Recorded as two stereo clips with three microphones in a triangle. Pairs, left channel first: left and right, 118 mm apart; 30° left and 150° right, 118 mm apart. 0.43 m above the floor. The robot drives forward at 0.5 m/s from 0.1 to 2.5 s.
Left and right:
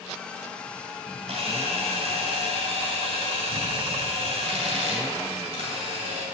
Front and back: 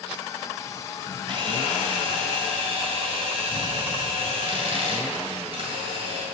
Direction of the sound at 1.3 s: 105° right.